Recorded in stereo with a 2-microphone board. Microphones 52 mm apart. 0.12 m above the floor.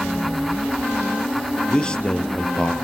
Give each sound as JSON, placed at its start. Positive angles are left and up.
{"t": 1.7, "sound": "a man speaking", "side_deg": 20, "distance_m": 2.0}